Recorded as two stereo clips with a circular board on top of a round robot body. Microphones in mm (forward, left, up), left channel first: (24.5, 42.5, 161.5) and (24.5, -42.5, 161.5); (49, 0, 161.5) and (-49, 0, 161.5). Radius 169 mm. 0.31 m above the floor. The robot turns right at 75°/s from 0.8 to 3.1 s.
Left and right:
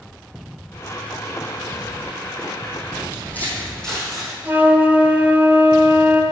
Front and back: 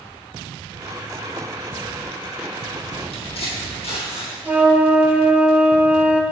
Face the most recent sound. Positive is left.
turn(degrees=-130)